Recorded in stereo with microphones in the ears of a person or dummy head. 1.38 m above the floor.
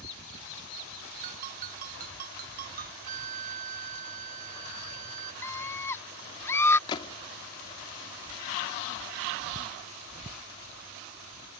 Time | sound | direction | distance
1.2 | a ringtone | 50° right (ahead or behind) | ?
3.0 | a flute | 45° right (ahead or behind) | ?
5.4 | a scream | 15° left (ahead or behind) | ?
6.9 | a gunshot | 20° left (ahead or behind) | ?